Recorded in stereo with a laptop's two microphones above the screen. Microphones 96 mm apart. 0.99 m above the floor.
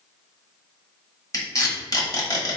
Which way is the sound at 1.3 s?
40° left (ahead or behind).